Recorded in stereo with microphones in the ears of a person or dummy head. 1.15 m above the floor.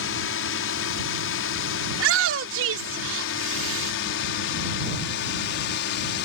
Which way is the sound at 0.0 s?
65° left (ahead or behind).